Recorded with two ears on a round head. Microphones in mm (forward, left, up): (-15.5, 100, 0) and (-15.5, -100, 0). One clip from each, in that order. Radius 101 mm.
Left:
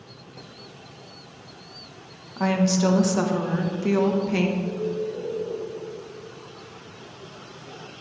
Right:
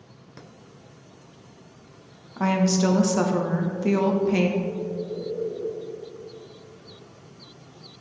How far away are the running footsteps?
No running footsteps in this recording.